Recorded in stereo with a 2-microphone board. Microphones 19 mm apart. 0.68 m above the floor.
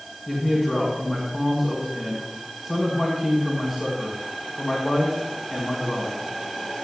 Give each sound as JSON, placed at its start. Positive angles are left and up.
{"t": 0.3, "sound": "a man speaking", "side_deg": -15, "distance_m": 4.5}